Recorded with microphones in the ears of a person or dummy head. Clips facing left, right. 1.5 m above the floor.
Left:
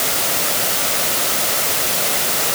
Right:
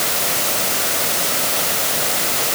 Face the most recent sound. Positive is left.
No sound to turn to.